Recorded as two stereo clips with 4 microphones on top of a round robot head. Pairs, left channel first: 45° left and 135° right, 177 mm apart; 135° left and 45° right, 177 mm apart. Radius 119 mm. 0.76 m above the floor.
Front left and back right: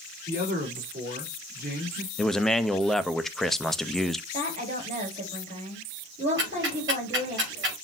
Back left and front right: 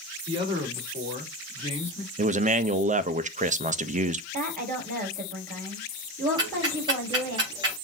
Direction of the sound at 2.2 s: 45° right.